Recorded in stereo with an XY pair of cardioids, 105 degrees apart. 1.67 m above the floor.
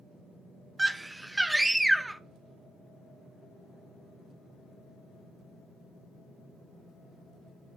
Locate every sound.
0.8 s a scream: 10° right, 0.6 m